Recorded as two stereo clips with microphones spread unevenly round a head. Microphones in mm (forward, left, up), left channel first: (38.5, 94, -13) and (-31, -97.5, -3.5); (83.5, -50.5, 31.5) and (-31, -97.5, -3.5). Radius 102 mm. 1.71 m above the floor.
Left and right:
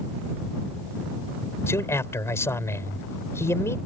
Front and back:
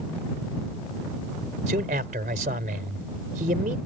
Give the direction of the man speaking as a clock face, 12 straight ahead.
7 o'clock.